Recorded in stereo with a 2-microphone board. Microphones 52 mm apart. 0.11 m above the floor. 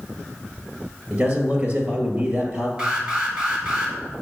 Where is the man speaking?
30° right (ahead or behind), 1.9 m.